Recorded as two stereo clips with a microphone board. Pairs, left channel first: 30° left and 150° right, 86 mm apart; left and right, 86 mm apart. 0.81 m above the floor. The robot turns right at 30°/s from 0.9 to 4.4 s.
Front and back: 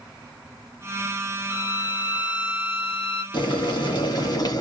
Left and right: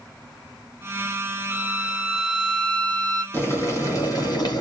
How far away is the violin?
About 2.5 m.